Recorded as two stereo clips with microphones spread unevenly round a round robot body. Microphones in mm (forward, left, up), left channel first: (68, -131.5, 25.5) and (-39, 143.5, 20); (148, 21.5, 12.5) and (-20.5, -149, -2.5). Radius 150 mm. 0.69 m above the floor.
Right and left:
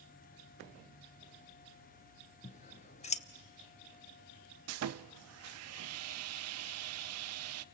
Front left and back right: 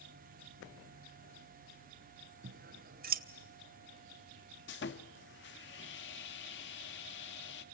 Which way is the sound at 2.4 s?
125° right.